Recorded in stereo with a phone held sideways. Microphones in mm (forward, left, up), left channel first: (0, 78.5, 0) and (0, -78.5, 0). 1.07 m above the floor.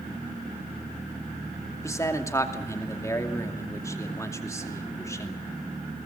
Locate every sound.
1.8 s a man speaking: 20° left (ahead or behind), 2.5 m